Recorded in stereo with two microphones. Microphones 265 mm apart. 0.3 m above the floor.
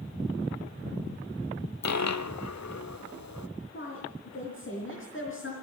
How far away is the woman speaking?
About 4.5 m.